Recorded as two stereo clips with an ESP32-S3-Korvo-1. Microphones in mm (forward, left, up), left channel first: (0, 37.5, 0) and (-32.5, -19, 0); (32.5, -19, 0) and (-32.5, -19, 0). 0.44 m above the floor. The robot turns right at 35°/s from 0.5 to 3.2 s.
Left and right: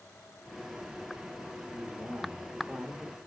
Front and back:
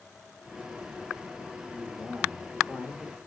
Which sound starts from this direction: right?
A man speaking, at 1.7 s.